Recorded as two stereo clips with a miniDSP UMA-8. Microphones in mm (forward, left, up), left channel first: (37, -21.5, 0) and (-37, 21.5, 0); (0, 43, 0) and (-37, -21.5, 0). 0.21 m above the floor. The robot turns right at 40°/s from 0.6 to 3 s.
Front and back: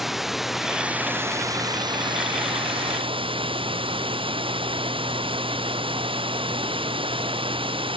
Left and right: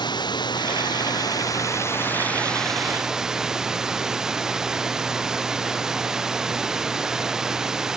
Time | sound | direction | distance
0.0 | running water | 60° left | ?